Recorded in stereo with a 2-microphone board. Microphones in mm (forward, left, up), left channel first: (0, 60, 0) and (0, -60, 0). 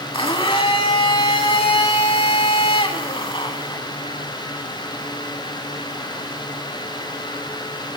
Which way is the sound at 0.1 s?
50° left (ahead or behind).